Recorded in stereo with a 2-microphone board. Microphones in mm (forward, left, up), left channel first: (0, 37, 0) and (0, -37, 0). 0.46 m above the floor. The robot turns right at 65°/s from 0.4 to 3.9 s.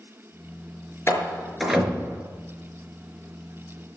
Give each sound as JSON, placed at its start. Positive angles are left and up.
{"t": 1.1, "sound": "a door slam", "side_deg": 40, "distance_m": 4.5}